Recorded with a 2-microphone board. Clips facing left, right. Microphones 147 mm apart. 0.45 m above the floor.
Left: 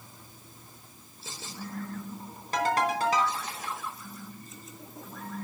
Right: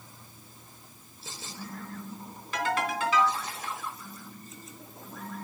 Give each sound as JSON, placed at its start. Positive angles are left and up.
{"t": 2.5, "sound": "a ringtone", "side_deg": 40, "distance_m": 3.5}